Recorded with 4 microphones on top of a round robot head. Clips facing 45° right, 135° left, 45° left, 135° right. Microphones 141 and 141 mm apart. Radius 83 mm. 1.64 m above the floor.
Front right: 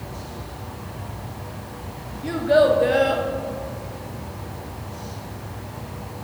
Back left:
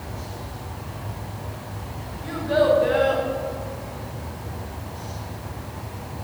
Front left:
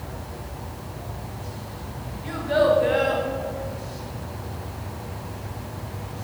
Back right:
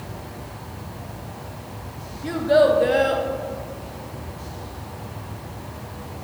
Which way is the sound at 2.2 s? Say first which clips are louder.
Front right 3 dB, back right 4 dB; 90° right.